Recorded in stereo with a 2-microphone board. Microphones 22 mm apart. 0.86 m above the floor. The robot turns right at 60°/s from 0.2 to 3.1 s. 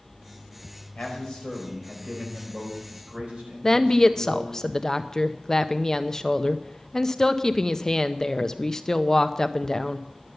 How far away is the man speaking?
About 4.5 m.